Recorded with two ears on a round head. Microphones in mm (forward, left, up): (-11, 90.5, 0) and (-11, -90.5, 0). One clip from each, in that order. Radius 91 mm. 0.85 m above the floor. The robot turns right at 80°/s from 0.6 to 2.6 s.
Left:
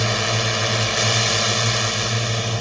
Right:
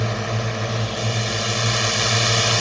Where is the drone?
85° left; by 2.6 s 115° right.